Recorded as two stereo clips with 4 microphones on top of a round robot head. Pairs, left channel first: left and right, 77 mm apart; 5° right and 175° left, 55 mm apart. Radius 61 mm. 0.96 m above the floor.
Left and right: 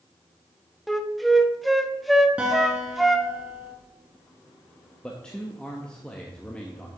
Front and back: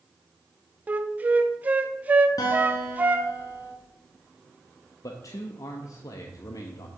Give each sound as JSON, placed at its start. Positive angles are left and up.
{"t": 0.9, "sound": "a flute", "azimuth_deg": 180, "distance_m": 0.9}
{"t": 2.4, "sound": "a guitar", "azimuth_deg": -10, "distance_m": 1.8}
{"t": 5.0, "sound": "a man speaking", "azimuth_deg": 10, "distance_m": 1.0}